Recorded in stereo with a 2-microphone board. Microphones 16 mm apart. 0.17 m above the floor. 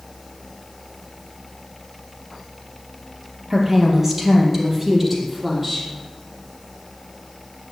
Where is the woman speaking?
20° right (ahead or behind), 3.5 m; by 5.9 s 5° right (ahead or behind), 5 m.